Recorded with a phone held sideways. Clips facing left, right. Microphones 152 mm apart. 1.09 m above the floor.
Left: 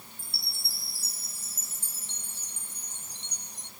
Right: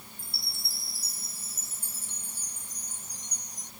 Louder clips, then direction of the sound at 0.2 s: Right 1 dB; 30° left (ahead or behind).